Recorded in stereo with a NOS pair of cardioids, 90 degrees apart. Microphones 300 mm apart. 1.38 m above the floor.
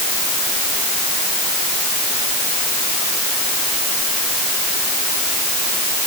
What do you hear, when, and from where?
Only background noise.